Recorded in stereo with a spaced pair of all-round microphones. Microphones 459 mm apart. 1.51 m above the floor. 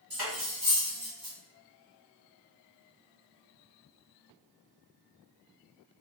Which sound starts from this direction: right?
Cutlery clinking, at 0.1 s.